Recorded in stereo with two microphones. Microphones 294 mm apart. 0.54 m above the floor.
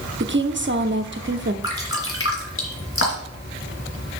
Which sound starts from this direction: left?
Dripping, at 1.6 s.